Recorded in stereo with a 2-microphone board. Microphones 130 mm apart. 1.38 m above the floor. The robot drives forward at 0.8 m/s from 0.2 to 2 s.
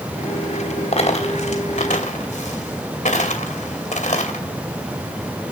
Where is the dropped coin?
55° left (ahead or behind), 3 m; by 4.5 s 70° left (ahead or behind), 2.5 m.